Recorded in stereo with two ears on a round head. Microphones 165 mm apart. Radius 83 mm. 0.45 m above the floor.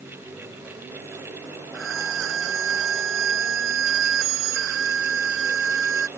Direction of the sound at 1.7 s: 80° right.